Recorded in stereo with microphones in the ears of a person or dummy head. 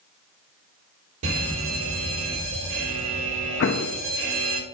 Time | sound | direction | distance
1.2 | a fire alarm | 75° right (ahead or behind) | 4 m
3.6 | an explosion | 60° left (ahead or behind) | 0.6 m